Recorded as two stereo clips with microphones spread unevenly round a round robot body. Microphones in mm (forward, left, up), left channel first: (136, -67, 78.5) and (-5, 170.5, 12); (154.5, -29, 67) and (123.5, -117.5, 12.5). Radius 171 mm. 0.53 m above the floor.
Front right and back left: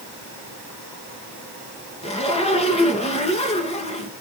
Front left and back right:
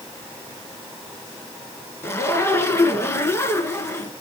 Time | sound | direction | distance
2.0 | a zipper | 10° left | 3 m